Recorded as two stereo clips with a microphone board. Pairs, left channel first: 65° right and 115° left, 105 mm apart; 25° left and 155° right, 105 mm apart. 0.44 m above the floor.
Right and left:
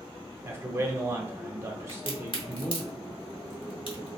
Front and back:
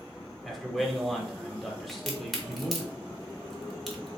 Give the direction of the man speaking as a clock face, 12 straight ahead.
8 o'clock.